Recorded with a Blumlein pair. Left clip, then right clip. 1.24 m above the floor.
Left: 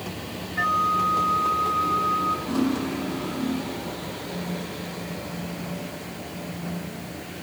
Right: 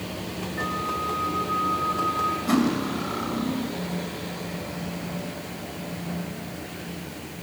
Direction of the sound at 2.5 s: 55° right.